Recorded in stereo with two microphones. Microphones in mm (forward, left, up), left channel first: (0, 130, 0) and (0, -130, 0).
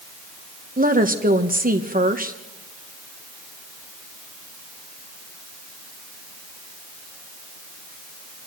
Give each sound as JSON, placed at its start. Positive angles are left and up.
{"t": 0.8, "sound": "a woman speaking", "side_deg": -30, "distance_m": 1.5}